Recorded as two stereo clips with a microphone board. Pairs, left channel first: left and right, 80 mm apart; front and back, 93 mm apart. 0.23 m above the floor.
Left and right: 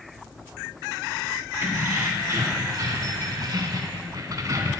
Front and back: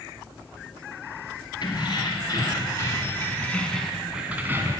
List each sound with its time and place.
1.6 s keys jangling: 40° right, 2.5 m; by 4.8 s 130° right, 1.4 m